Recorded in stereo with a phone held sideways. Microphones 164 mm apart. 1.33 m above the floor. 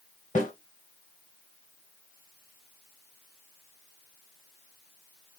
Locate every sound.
0.3 s a snare drum: 50° left (ahead or behind), 1.6 m